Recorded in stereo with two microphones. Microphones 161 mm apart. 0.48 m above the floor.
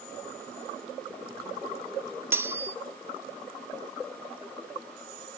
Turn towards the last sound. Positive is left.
turn(degrees=-15)  # may be behind; listen again after turning